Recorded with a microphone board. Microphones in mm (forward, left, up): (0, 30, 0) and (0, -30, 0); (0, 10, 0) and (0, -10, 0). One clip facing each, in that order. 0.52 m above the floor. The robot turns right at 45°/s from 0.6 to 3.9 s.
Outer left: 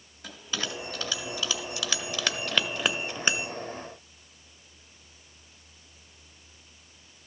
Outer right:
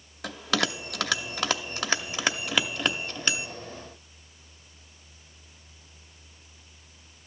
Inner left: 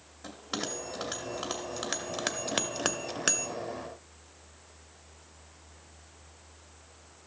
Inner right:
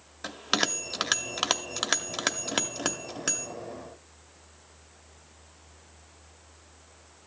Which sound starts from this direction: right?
A bell, at 0.2 s.